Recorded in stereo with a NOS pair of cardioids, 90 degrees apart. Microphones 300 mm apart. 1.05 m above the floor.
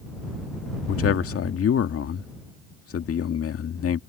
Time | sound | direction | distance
0.9 | a man speaking | 50° left | ?